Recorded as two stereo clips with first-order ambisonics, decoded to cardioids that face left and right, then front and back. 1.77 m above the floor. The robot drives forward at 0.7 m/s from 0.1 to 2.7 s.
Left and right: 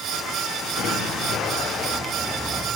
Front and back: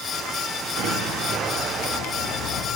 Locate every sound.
0.8 s an explosion: 150° left, 6 m; by 2.1 s 155° left, 7 m